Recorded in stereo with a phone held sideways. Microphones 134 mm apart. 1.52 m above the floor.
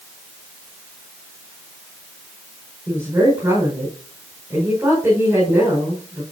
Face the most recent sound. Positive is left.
turn(degrees=-15)  # may be behind; listen again after turning